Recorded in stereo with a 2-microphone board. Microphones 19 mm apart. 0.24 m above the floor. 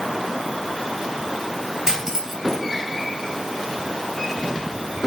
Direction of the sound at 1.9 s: 20° right (ahead or behind).